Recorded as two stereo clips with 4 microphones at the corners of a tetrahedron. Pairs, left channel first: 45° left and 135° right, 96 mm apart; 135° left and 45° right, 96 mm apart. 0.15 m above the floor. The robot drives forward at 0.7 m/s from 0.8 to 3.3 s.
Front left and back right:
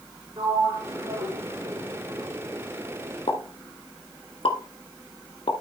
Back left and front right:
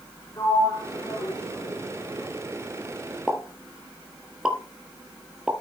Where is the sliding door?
175° left, 5 m.